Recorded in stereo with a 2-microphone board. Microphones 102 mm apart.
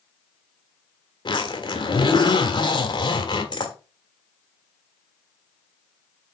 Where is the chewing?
I don't hear chewing.